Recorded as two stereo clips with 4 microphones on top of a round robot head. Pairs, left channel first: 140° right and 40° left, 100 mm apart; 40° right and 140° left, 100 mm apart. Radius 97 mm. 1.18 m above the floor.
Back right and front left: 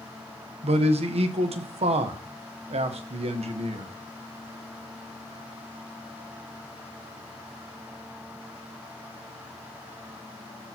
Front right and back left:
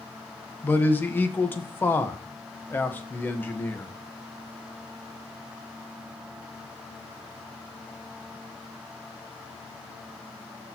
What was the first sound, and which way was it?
A man speaking, 30° left.